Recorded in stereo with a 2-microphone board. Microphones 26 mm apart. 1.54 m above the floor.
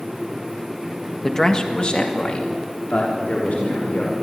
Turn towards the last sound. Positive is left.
turn(degrees=70)  # may be behind; listen again after turning